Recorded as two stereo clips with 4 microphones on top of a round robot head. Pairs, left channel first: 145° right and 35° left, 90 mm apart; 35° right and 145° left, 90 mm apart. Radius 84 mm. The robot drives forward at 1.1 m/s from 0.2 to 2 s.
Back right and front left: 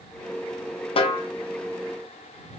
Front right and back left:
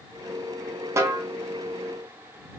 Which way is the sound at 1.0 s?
155° right.